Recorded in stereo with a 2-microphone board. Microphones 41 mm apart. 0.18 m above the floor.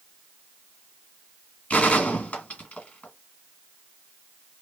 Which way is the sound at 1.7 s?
30° left (ahead or behind).